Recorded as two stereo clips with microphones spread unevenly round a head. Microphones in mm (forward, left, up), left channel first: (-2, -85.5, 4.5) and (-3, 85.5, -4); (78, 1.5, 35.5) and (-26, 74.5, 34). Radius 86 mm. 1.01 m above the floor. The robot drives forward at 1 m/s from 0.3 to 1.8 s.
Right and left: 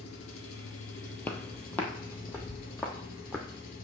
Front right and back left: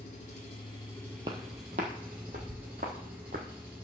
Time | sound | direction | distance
0.0 | an engine running | 85° right | 1.4 m
1.2 | footsteps | 160° right | 1.2 m